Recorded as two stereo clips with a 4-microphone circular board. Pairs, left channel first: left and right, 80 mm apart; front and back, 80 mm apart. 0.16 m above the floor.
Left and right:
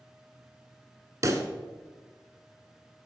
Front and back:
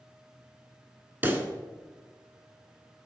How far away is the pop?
About 1.0 m.